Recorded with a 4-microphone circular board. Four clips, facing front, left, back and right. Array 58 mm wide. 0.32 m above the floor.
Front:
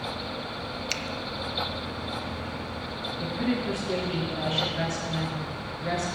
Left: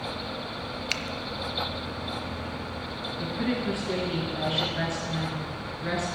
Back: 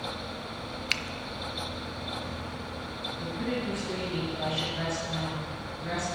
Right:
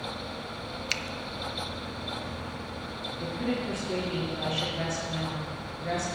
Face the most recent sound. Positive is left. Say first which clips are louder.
# left 2 dB, front 4 dB
turn(degrees=80)